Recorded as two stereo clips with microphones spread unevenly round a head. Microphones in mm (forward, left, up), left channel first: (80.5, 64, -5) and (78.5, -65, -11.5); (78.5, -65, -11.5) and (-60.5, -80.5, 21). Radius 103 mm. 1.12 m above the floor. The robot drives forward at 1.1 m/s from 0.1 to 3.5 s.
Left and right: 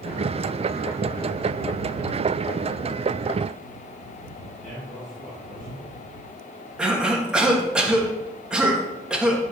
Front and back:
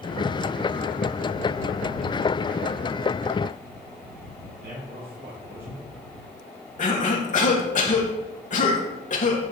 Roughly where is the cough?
Ahead.